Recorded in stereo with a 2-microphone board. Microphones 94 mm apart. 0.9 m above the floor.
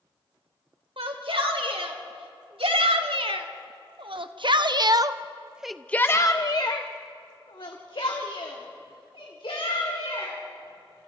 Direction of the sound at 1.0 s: 85° right.